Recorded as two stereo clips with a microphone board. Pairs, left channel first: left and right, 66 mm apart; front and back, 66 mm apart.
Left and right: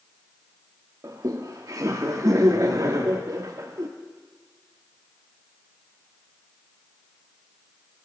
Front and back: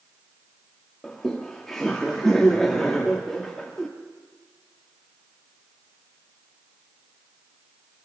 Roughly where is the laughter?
Right.